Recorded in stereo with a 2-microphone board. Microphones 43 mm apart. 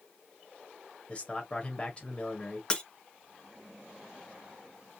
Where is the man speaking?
30° left (ahead or behind), 1.3 m.